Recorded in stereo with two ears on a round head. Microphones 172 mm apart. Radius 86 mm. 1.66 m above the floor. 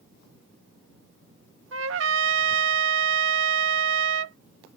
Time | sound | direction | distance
1.7 | a trumpet | 70° right (ahead or behind) | ?